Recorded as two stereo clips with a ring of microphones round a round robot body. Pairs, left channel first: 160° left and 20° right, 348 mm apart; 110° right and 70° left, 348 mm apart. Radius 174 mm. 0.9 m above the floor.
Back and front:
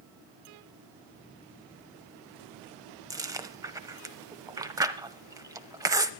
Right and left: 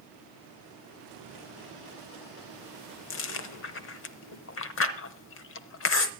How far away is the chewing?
About 0.8 m.